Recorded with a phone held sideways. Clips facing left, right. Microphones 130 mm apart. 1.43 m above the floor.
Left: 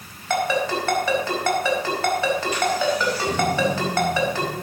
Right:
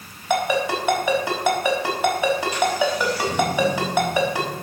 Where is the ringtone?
15° right (ahead or behind), 4.5 m.